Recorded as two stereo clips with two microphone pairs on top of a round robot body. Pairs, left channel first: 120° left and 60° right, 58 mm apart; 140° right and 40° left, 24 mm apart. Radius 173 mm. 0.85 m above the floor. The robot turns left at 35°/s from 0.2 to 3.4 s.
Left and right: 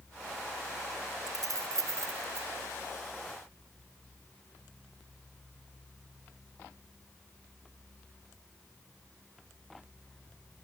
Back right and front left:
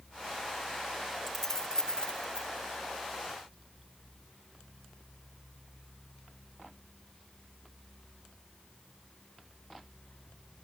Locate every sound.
1.3 s keys jangling: 65° right, 0.7 m; by 2.5 s 105° right, 0.7 m